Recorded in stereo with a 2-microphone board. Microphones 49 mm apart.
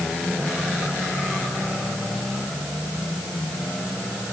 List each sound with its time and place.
Only background noise.